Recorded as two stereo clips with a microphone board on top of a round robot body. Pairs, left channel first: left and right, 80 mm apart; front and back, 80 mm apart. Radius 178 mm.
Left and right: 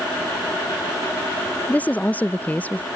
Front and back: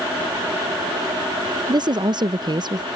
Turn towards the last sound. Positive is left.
turn(degrees=160)